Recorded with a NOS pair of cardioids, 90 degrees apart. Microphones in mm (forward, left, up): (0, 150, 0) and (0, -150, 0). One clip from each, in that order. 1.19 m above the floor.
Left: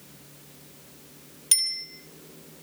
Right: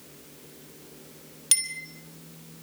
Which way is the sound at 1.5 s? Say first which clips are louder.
Left 3 dB; 30° right.